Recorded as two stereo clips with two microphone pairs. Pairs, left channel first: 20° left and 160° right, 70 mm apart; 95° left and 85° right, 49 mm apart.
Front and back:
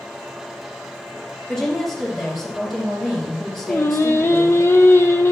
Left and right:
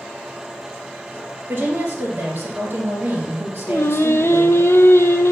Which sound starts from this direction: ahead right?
A woman speaking, at 1.5 s.